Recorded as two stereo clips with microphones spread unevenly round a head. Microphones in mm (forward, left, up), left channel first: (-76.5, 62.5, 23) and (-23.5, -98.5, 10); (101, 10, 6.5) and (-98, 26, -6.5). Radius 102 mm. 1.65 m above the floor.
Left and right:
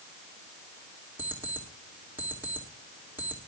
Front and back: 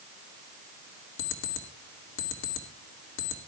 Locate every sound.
1.2 s an alarm clock: 10° left, 2 m